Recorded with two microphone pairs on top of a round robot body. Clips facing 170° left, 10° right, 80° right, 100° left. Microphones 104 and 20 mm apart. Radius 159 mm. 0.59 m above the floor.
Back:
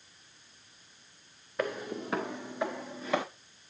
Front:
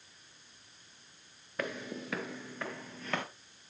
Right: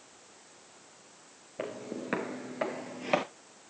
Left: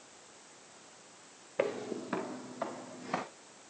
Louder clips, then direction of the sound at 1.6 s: Back 5 dB, left 4 dB; 75° left.